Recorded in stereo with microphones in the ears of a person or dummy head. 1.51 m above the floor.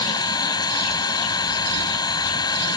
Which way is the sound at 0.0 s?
20° left (ahead or behind).